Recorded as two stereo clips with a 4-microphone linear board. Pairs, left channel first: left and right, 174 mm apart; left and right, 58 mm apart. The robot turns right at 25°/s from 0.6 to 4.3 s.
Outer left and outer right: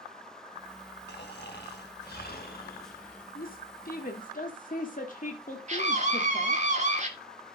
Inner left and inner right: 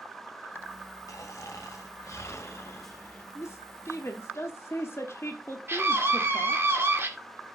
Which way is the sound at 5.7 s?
45° right (ahead or behind).